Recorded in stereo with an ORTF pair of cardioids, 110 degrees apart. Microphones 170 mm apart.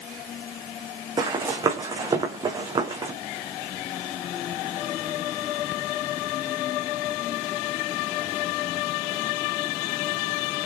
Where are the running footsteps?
25° right, 4 m.